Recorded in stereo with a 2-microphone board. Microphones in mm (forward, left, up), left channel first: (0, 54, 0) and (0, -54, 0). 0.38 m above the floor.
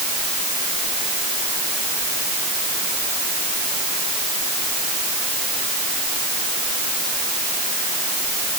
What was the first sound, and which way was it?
Only background noise.